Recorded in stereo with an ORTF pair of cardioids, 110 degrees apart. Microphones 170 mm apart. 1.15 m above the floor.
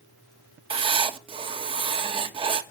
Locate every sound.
0.7 s writing: 30° right, 1.3 m